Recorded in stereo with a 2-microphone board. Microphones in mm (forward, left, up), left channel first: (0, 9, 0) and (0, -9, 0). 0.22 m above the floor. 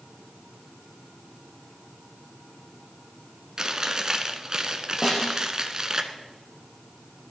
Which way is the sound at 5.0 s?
20° left (ahead or behind).